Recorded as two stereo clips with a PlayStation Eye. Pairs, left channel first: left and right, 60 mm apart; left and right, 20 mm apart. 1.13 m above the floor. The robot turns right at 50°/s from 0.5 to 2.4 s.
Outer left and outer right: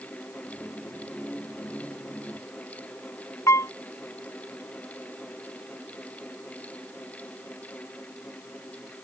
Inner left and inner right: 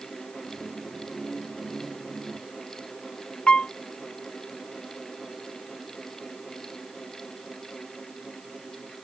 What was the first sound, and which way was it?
A piano, 55° left (ahead or behind).